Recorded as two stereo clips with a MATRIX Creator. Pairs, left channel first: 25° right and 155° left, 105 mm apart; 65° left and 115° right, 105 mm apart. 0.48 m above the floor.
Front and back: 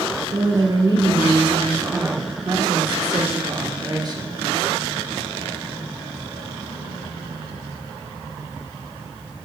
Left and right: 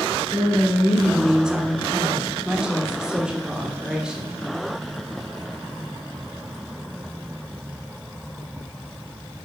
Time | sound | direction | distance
0.3 | a woman speaking | 165° left | 1.2 m